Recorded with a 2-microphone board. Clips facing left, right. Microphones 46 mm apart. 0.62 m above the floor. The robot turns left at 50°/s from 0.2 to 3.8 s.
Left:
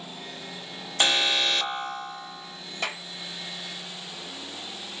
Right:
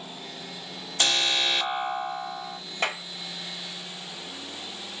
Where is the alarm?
25° left, 1.0 m; by 2.6 s 55° right, 1.0 m.